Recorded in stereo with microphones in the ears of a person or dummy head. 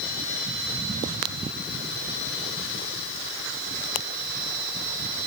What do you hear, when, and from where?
Only background noise.